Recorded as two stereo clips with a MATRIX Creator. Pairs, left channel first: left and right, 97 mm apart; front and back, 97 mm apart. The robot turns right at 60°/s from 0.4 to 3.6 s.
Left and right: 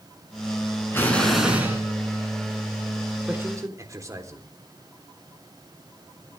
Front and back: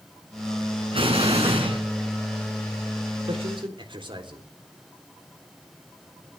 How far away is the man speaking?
About 3.5 m.